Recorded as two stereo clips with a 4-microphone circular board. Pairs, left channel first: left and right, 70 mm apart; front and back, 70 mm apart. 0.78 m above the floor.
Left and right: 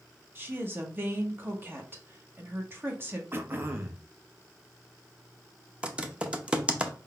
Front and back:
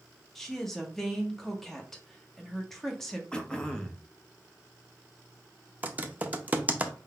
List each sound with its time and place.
0.3 s a woman speaking: 80° right, 1.1 m
3.3 s throat clearing: 70° right, 0.7 m
5.8 s typing on a keyboard: 145° right, 0.6 m